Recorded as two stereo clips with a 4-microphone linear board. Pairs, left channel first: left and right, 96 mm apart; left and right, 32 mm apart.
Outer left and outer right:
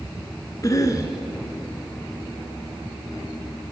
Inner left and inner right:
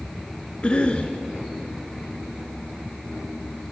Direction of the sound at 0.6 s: 35° left (ahead or behind).